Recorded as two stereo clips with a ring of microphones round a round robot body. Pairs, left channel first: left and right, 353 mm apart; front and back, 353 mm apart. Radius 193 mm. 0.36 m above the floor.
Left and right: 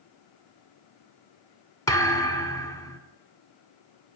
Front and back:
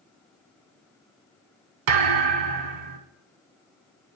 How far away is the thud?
About 0.8 m.